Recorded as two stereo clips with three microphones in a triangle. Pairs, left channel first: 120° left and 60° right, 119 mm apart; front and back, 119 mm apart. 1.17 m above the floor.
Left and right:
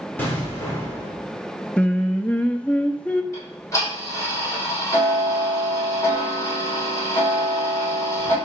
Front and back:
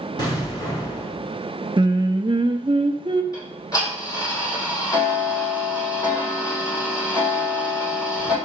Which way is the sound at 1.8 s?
165° right.